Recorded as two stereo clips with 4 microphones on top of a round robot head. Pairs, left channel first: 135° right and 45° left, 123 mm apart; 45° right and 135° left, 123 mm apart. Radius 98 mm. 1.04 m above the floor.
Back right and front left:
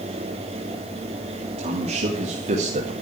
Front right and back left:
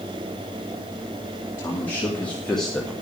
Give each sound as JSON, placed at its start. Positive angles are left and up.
{"t": 1.6, "sound": "a man speaking", "azimuth_deg": 25, "distance_m": 2.0}